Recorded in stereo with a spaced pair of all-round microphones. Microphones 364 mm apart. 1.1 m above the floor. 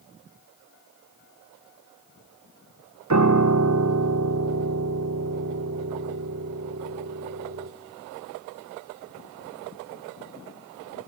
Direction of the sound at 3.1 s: 50° right (ahead or behind).